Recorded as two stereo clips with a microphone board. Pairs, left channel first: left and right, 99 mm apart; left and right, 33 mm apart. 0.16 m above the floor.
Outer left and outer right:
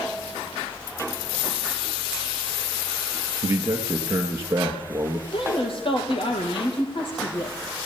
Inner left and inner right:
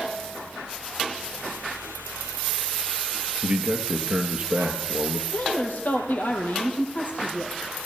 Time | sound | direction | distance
3.4 | a man speaking | 25° right (ahead or behind) | 3 m
5.3 | a woman speaking | 60° left (ahead or behind) | 5 m